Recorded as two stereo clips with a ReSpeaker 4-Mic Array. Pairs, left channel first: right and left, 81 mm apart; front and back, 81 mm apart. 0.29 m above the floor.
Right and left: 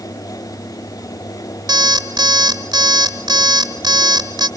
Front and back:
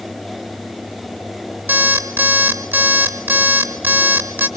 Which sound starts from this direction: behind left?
An alarm clock, at 1.7 s.